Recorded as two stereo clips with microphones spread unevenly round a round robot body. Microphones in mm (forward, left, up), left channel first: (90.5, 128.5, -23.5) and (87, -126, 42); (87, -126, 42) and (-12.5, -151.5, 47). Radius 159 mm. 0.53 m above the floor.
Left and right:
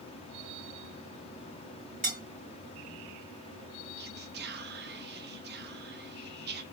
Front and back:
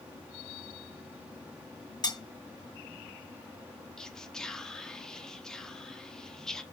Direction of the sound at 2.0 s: 35° right.